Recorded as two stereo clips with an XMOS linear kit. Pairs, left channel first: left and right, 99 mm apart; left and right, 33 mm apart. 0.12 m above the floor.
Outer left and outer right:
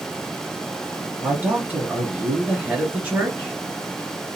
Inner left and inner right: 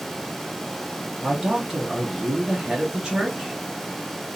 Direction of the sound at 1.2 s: 15° right (ahead or behind).